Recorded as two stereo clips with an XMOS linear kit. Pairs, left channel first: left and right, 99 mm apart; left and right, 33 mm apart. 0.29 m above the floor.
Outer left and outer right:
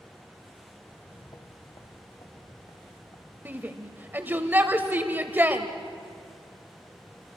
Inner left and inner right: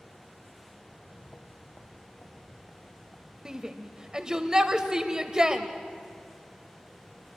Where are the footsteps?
60° left (ahead or behind), 1.5 m.